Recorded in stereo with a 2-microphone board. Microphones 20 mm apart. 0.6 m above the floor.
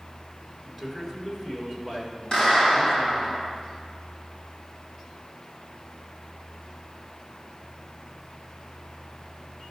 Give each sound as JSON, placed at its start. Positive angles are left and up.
{"t": 0.7, "sound": "a man speaking", "side_deg": 20, "distance_m": 1.6}
{"t": 2.3, "sound": "a clap", "side_deg": 50, "distance_m": 3.5}